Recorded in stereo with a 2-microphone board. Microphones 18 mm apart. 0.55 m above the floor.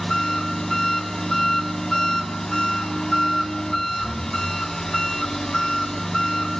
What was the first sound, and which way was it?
An engine running, 30° left (ahead or behind).